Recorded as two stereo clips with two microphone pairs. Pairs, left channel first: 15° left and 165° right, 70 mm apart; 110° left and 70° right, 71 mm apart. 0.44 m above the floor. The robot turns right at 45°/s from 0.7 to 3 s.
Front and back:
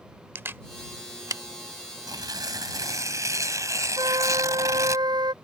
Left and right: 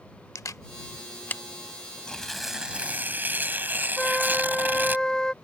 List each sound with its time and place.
0.3 s a camera shutter: 145° left; by 1.4 s 175° left
2.1 s tearing paper: 170° right; by 5.0 s 130° right
4.0 s a flute: 165° right